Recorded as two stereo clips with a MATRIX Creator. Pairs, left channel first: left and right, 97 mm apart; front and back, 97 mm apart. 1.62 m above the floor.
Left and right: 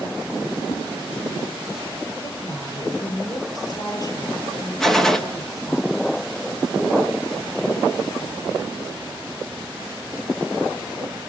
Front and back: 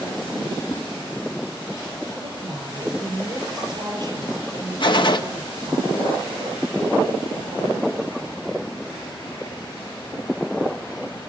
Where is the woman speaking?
135° left, 6 m.